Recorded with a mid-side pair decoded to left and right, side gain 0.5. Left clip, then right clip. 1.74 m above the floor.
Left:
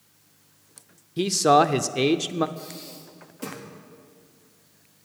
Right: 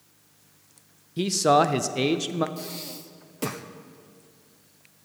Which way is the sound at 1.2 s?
15° left.